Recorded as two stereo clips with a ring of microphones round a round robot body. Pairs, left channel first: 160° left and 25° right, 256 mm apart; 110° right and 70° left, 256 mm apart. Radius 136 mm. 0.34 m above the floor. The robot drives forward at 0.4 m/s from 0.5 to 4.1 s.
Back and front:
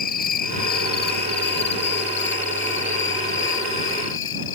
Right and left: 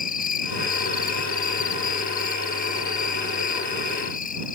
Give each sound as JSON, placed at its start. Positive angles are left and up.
{"t": 0.0, "sound": "an insect", "azimuth_deg": -160}